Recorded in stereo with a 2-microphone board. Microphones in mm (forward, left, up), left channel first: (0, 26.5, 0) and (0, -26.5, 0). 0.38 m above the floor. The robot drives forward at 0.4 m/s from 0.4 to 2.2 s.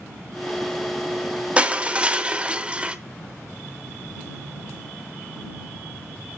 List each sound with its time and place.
1.6 s crushing: 25° right (ahead or behind), 0.7 m; by 3.0 s 20° right (ahead or behind), 0.8 m